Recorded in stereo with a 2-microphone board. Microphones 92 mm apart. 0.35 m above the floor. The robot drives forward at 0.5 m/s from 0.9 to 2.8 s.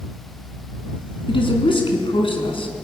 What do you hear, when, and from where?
1.3 s a woman speaking: 65° left (ahead or behind), 3.5 m; by 2.7 s 70° left (ahead or behind), 3.5 m